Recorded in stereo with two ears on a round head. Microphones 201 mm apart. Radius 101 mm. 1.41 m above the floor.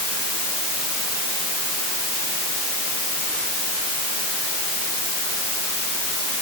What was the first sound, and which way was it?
Only background noise.